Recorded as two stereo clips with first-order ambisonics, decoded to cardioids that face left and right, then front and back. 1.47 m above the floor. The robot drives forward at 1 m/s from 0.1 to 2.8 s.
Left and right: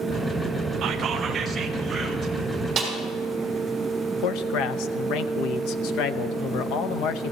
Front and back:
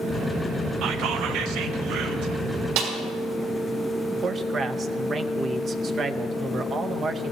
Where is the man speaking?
115° left, 0.7 m.